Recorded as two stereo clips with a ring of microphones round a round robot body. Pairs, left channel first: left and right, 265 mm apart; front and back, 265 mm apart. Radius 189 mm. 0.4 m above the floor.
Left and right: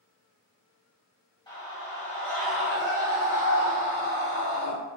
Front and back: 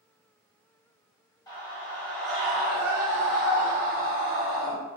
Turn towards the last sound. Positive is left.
turn(degrees=-140)